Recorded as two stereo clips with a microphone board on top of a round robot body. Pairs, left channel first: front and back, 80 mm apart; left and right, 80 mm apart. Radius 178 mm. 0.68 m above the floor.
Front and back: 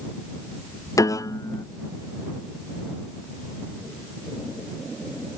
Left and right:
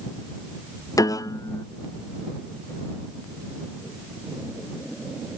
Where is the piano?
45° left.